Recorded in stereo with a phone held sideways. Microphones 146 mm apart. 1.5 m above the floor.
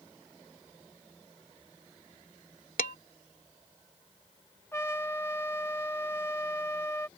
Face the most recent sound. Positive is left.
turn(degrees=15)  # may be behind; listen again after turning